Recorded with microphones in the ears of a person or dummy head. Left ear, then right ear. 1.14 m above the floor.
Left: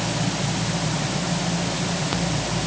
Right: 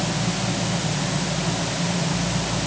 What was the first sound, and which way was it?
Only background noise.